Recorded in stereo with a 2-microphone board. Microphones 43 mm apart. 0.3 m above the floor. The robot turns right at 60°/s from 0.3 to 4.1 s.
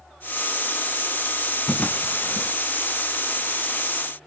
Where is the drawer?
25° left (ahead or behind), 1.2 m; by 2.5 s 70° left (ahead or behind), 1.2 m.